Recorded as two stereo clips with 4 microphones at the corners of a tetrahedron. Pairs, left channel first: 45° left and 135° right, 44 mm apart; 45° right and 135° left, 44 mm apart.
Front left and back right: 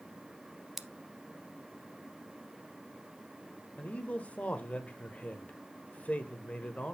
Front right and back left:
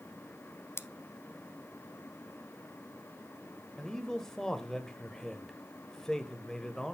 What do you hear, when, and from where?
0.8 s scissors: 50° right, 0.6 m
3.8 s a man speaking: 20° left, 1.0 m